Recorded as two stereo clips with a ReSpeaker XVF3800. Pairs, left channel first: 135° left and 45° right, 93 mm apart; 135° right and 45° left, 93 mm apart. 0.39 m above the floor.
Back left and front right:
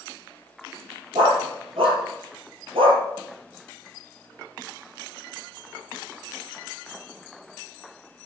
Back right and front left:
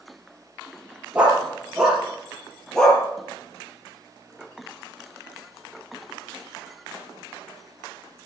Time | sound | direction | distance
1.1 | a dog barking | 30° right | 4 m